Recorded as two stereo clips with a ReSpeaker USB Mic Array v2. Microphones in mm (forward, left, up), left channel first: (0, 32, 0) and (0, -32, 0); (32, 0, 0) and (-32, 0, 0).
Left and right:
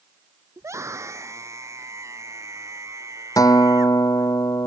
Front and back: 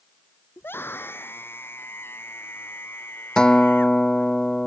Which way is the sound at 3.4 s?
80° left.